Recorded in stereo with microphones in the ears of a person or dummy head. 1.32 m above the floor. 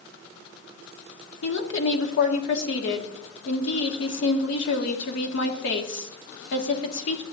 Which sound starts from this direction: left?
A woman speaking, at 1.4 s.